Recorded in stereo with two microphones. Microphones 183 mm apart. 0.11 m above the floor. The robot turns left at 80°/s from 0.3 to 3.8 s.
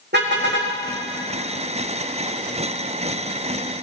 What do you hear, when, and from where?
0.1 s a car horn: 70° right, 3 m; by 0.7 s 105° right, 3 m